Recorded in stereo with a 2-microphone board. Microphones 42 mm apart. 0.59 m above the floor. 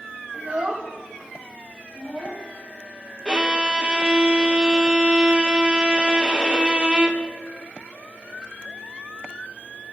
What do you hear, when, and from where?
0.3 s a child speaking: 40° right (ahead or behind), 1.6 m; by 2.5 s 35° left (ahead or behind), 2 m
3.2 s a violin: 20° right (ahead or behind), 1.3 m